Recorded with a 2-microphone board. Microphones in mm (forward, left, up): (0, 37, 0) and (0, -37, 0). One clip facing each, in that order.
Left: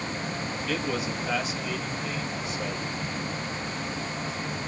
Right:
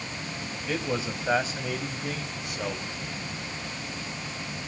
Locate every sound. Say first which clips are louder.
0.7 s a man speaking: right 1 dB; 15° right (ahead or behind), 2.5 m; by 2.9 s 60° right (ahead or behind), 3.5 m